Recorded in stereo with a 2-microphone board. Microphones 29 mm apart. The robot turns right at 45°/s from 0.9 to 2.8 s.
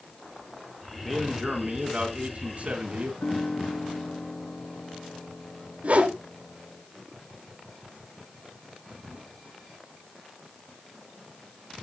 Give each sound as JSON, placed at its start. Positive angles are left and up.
{"t": 1.0, "sound": "a man speaking", "azimuth_deg": 175, "distance_m": 2.5}
{"t": 3.2, "sound": "a piano", "side_deg": 70, "distance_m": 2.5}
{"t": 5.8, "sound": "a whoosh", "side_deg": -55, "distance_m": 1.8}